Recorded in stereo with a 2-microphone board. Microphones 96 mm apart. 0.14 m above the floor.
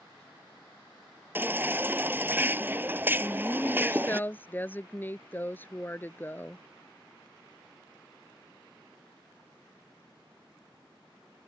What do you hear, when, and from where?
1.4 s a baby crying: 25° right (ahead or behind)
3.2 s a woman speaking: 20° left (ahead or behind)